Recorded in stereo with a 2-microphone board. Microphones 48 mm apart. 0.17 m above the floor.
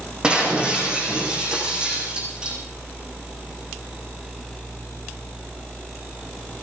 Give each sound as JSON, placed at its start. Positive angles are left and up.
{"t": 0.2, "sound": "breaking glass", "side_deg": -15, "distance_m": 5.5}